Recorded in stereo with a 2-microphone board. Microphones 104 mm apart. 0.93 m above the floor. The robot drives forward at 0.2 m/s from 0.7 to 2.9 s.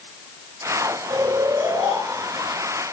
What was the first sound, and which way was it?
Snoring, 60° right (ahead or behind).